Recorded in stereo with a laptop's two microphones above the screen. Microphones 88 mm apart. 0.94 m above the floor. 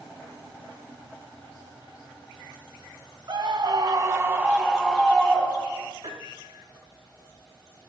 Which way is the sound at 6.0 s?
85° right.